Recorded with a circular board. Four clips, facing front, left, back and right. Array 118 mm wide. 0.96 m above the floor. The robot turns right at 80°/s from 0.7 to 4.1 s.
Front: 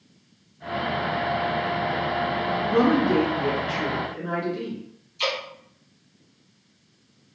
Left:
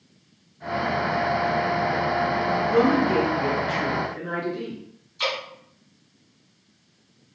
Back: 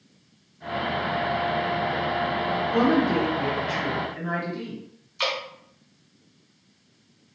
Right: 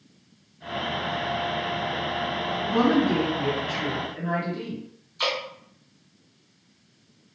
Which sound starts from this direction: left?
A woman speaking, at 2.6 s.